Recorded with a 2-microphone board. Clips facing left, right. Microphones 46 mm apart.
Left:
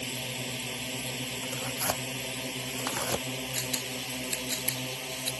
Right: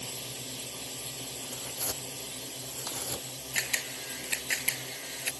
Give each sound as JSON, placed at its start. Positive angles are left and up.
{"t": 0.0, "sound": "a drone", "side_deg": 50}
{"t": 1.4, "sound": "tearing paper", "side_deg": 80}
{"t": 3.5, "sound": "a camera shutter", "side_deg": -60}